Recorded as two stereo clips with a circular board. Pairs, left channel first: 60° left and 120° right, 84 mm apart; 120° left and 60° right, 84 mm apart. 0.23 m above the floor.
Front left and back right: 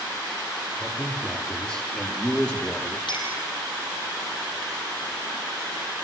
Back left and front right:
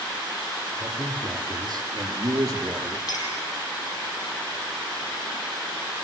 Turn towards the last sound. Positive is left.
turn(degrees=80)